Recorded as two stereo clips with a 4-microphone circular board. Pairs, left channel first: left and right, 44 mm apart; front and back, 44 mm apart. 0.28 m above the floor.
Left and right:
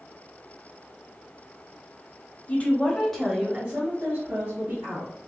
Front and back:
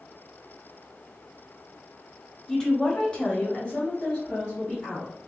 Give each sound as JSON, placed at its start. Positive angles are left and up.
{"t": 2.5, "sound": "a woman speaking", "azimuth_deg": 75, "distance_m": 1.0}